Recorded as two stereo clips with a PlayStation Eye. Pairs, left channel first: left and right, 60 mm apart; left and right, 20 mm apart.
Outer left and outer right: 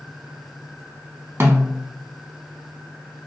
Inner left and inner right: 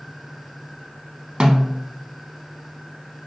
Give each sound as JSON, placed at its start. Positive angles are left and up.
{"t": 1.4, "sound": "a snare drum", "side_deg": -45, "distance_m": 0.6}